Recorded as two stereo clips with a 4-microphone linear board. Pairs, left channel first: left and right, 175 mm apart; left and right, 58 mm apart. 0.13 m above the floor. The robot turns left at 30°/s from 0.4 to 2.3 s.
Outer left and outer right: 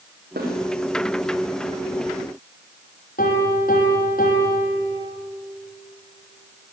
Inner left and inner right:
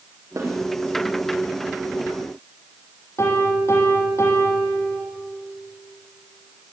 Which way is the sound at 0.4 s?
75° right (ahead or behind).